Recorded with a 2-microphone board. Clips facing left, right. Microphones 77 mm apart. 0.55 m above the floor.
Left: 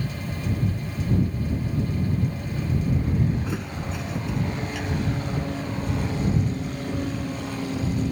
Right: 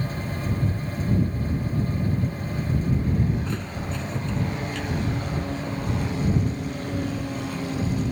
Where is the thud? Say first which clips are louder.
Even; 10° left (ahead or behind).